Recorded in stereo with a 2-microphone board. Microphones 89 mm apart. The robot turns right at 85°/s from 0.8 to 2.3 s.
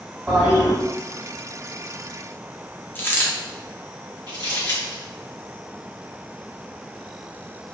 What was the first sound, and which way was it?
A toilet flushing, 10° right (ahead or behind).